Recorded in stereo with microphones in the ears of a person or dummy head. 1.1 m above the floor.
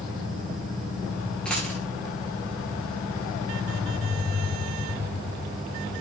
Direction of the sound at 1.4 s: Centre (ahead or behind).